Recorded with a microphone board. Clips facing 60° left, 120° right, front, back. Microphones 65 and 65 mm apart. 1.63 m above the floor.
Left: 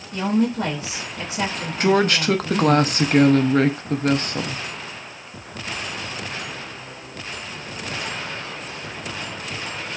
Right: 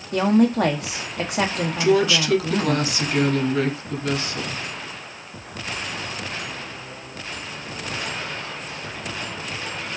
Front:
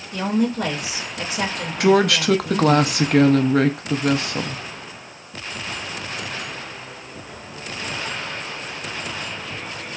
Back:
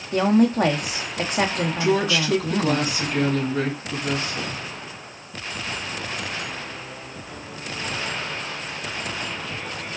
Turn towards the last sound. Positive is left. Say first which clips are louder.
# left 1 dB, front 6 dB
turn(degrees=20)